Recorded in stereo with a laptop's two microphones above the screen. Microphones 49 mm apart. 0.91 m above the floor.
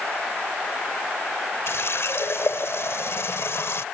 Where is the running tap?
65° left (ahead or behind).